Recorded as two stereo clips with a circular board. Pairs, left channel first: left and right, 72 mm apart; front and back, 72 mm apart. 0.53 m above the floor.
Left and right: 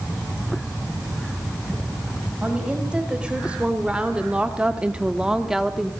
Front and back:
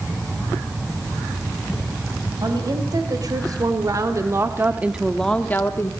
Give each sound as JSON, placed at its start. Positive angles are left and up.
{"t": 2.4, "sound": "a woman speaking", "azimuth_deg": -165, "distance_m": 3.5}